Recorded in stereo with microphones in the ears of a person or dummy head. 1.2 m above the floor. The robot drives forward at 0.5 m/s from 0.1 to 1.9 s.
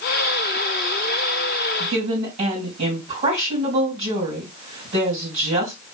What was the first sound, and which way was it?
A woman speaking, 45° right (ahead or behind).